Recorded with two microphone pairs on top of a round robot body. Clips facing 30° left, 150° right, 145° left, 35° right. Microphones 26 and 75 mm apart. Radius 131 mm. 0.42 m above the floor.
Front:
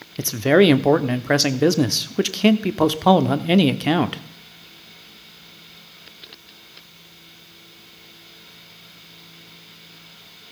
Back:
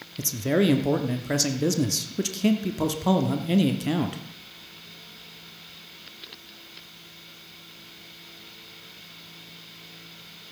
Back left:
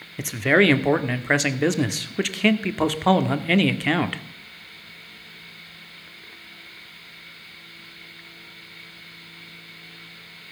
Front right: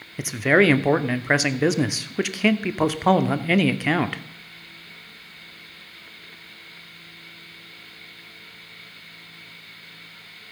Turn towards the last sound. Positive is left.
turn(degrees=45)